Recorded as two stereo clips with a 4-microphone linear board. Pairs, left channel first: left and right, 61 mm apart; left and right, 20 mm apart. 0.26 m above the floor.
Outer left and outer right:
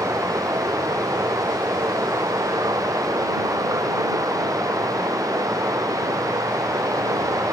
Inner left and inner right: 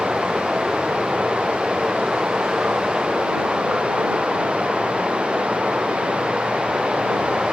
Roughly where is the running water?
Right.